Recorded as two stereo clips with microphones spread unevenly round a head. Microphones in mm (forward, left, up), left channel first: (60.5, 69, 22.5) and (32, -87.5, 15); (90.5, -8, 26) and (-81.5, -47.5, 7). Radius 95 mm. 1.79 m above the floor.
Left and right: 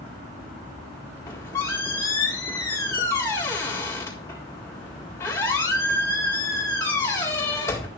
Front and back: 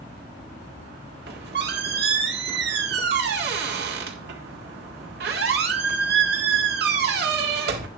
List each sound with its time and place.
1.3 s a squeak: 155° left, 1.7 m